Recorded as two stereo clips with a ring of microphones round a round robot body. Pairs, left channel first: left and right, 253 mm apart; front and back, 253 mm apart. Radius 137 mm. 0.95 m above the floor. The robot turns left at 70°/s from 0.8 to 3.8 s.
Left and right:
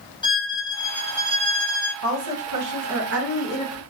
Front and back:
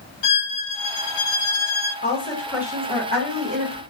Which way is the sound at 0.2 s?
15° left.